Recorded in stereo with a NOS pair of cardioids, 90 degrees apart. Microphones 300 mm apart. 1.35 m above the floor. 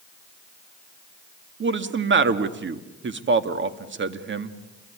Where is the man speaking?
40° right, 2 m.